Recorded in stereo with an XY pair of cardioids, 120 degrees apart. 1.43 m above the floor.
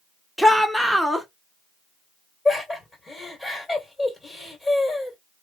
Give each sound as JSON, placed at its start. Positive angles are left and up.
{"t": 0.4, "sound": "a shout", "azimuth_deg": 0, "distance_m": 1.0}
{"t": 2.5, "sound": "laughter", "azimuth_deg": 30, "distance_m": 2.0}